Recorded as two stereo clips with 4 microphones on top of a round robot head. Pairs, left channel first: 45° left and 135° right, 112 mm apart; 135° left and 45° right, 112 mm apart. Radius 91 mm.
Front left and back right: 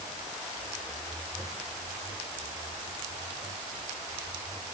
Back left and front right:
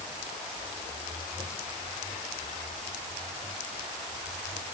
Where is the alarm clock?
I don't hear an alarm clock.